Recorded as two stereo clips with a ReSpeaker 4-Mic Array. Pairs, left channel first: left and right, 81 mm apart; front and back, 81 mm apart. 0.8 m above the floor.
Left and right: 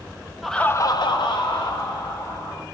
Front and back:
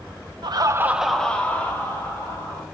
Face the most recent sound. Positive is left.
turn(degrees=60)